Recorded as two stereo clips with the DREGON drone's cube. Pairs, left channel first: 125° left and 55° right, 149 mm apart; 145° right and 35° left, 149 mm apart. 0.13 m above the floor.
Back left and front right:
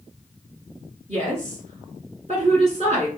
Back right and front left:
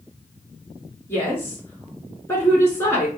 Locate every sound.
1.1 s a woman speaking: 80° right, 2 m